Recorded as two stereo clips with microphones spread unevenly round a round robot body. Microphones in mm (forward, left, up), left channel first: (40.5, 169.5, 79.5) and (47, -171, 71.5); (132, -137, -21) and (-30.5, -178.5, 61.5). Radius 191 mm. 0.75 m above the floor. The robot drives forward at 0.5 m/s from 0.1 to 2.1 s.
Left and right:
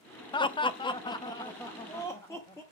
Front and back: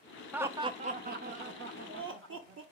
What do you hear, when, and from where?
0.3 s laughter: 35° left, 0.5 m; by 2.6 s 175° left, 0.9 m